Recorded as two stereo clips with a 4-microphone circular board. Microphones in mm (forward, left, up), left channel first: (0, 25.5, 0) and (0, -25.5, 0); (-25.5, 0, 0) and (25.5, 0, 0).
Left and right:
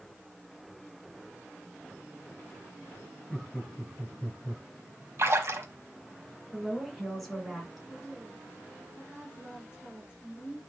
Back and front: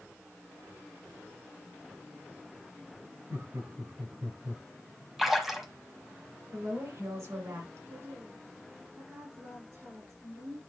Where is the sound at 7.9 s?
15° right, 5 m.